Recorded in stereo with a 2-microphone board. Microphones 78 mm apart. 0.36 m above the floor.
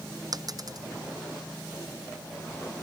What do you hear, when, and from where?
0.3 s a dropped coin: 55° right (ahead or behind)